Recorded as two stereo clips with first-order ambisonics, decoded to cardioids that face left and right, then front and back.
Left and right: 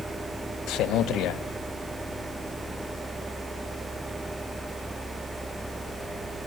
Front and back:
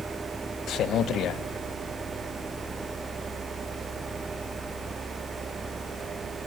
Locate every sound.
0.7 s a man speaking: 50° left, 1.3 m